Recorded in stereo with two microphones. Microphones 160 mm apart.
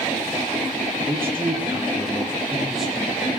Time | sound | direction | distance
1.1 | a man speaking | 20° right (ahead or behind) | 5 m